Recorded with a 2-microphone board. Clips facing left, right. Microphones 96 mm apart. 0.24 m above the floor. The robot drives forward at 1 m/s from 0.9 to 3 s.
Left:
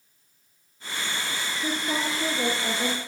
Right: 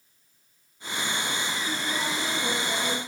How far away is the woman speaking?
About 6.5 m.